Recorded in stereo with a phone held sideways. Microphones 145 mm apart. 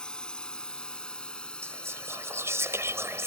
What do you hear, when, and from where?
0.0 s a drone: 5° left (ahead or behind)
1.6 s whispering: 15° right (ahead or behind)